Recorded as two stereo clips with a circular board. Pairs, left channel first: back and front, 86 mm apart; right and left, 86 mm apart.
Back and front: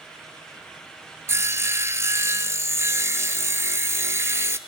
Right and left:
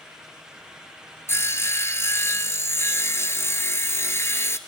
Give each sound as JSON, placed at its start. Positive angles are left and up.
{"t": 1.3, "sound": "sawing", "azimuth_deg": -45, "distance_m": 0.6}